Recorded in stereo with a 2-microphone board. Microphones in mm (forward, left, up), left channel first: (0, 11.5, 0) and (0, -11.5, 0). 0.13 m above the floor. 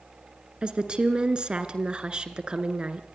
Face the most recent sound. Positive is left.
turn(degrees=-40)  # may be behind; listen again after turning